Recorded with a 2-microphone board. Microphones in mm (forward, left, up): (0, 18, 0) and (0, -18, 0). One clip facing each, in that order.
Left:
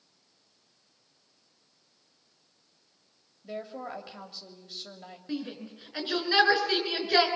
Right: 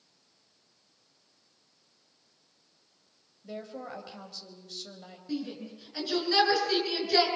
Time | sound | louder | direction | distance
3.4 | a woman speaking | left 2 dB | 15° left (ahead or behind) | 3 m
5.3 | a shout | right 1 dB | 25° left (ahead or behind) | 4 m